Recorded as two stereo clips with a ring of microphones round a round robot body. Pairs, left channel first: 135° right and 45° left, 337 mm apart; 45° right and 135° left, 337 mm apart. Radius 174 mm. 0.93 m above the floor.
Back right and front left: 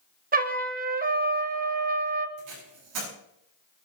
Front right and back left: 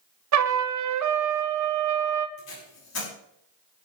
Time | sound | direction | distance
0.3 | a trumpet | 105° left | 1.4 m
2.4 | tape being pulled | 10° left | 7.5 m